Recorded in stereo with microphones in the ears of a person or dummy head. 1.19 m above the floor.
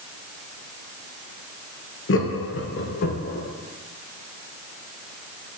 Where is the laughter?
65° left (ahead or behind), 1.2 m; by 3.5 s 50° left (ahead or behind), 2 m.